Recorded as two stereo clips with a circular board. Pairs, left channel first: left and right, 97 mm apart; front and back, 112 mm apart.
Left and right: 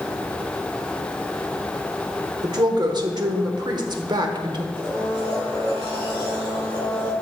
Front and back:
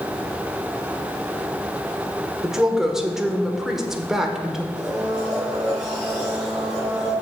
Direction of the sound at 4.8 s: 55° right.